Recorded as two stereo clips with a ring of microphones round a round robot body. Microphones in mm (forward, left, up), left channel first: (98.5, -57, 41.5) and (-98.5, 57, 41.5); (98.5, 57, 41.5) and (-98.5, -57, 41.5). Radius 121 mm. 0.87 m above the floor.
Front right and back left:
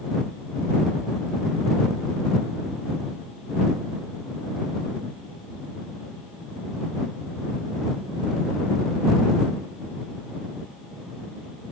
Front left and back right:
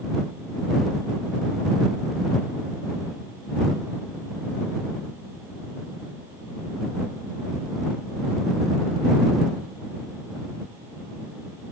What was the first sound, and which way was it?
Only background noise.